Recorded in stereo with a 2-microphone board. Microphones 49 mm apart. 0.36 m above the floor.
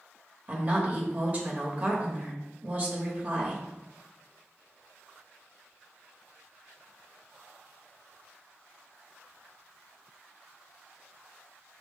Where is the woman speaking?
35° right (ahead or behind), 0.9 m.